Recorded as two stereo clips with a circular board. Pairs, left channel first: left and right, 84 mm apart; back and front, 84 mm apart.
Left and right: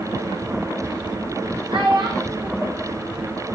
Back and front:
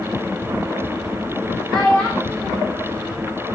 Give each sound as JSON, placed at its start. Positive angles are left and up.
{"t": 1.7, "sound": "a child speaking", "azimuth_deg": -95, "distance_m": 4.0}